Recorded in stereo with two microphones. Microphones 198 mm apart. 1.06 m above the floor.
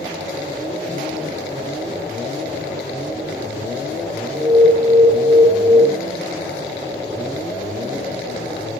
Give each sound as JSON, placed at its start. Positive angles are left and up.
{"t": 4.3, "sound": "an alarm", "side_deg": -5, "distance_m": 0.8}